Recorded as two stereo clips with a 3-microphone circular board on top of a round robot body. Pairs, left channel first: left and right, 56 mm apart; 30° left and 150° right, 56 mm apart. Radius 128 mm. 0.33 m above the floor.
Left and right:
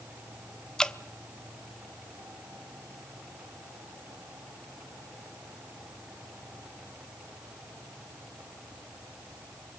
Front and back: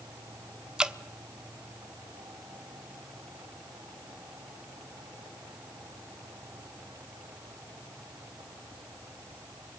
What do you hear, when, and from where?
0.8 s dripping: 150° left, 1.3 m